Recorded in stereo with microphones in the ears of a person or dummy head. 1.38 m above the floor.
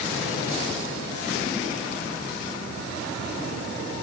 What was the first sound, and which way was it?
Only background noise.